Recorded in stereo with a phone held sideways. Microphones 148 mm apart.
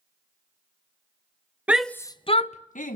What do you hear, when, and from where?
1.7 s a shout: 10° right (ahead or behind), 0.8 m; by 3.0 s 65° left (ahead or behind), 1.4 m